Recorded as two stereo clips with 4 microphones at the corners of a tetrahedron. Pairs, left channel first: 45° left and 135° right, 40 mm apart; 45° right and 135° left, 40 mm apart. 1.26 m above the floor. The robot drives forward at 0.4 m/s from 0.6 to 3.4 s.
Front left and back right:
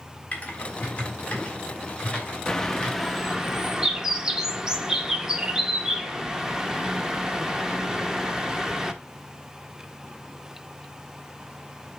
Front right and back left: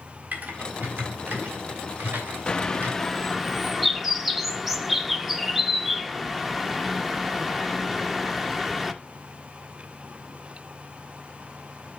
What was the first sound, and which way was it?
Typing on a keyboard, 95° left.